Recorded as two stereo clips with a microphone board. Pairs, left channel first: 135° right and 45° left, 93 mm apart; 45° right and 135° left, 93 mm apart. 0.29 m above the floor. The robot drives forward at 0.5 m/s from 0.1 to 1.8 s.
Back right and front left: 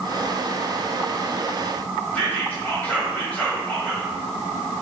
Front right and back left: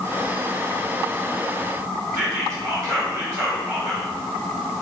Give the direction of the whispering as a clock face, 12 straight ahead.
7 o'clock.